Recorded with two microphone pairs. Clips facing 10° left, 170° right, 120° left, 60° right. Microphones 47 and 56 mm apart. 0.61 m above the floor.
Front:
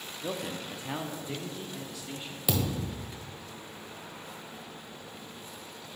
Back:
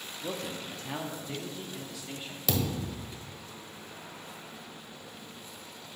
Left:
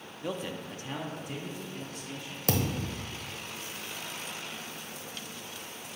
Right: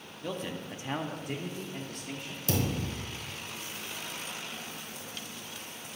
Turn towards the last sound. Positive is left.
turn(degrees=90)